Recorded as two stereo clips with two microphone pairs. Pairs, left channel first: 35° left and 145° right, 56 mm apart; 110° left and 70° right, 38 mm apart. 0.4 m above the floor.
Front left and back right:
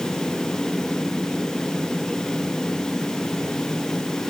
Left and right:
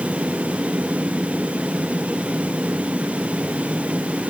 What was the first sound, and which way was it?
Only background noise.